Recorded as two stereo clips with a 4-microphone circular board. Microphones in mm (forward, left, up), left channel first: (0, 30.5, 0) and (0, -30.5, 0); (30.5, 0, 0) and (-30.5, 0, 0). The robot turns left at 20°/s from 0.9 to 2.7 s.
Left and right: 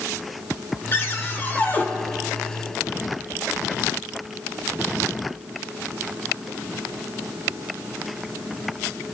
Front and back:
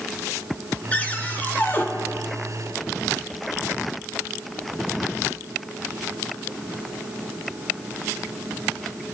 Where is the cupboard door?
60° left, 1.3 m; by 1.9 s 40° left, 1.3 m.